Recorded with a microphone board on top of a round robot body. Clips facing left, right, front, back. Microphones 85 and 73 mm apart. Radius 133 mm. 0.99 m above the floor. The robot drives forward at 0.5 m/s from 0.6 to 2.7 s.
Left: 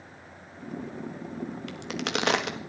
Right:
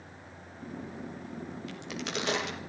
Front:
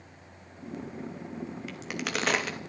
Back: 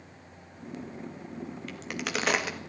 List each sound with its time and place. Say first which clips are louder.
1.7 s a crack: left 5 dB, back 1 dB; 85° left, 2 m; by 2.7 s 100° left, 2 m